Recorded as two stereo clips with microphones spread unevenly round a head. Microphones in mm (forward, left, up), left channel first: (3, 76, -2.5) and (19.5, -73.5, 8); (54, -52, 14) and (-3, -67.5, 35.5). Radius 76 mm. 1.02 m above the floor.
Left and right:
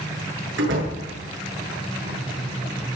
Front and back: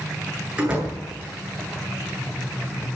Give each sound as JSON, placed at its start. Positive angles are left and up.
{"t": 0.6, "sound": "a door slam", "azimuth_deg": -95, "distance_m": 9.0}